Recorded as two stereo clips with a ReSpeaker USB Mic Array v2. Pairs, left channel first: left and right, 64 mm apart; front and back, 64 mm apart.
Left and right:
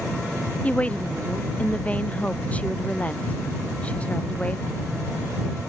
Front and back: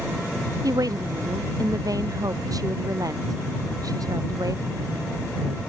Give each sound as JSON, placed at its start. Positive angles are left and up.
{"t": 0.6, "sound": "a woman speaking", "azimuth_deg": 160}